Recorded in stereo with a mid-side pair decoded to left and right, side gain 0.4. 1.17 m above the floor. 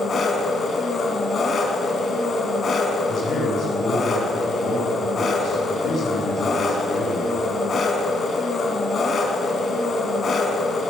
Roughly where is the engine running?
Ahead left.